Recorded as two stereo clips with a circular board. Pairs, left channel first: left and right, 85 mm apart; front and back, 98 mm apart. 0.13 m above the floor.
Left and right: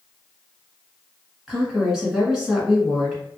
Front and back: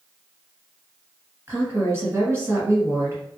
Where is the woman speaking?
165° right, 1.5 m.